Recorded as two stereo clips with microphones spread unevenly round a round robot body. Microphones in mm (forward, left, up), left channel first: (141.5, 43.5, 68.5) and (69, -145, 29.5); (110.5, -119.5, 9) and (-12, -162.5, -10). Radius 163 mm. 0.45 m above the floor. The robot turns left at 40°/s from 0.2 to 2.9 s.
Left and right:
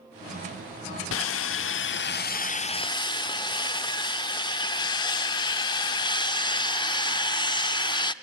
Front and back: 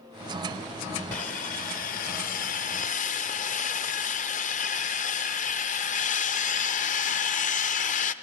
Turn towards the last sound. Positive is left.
turn(degrees=-5)